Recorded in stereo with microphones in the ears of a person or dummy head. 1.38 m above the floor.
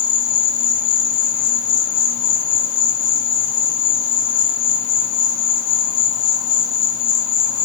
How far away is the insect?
About 0.8 m.